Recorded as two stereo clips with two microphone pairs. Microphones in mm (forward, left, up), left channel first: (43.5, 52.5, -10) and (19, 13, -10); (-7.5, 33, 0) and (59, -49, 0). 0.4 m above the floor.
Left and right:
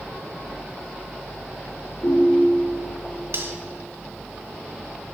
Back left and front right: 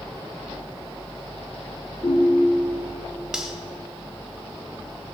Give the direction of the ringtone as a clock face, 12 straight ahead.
9 o'clock.